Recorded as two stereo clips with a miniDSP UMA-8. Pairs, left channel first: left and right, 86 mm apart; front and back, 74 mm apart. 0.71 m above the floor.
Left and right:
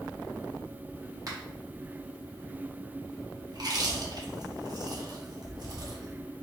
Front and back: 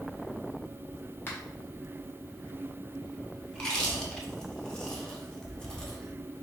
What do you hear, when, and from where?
1.3 s a finger snap: 55° right, 1.1 m
3.5 s chewing: 80° right, 0.8 m